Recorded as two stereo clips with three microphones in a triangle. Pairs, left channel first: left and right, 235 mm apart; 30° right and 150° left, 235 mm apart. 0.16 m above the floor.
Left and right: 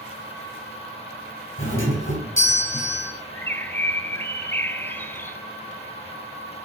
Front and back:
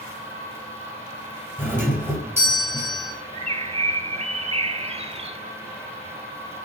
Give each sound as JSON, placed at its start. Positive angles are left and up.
{"t": 1.6, "sound": "a doorbell", "azimuth_deg": 70, "distance_m": 3.5}
{"t": 3.3, "sound": "a bird", "azimuth_deg": 160, "distance_m": 0.6}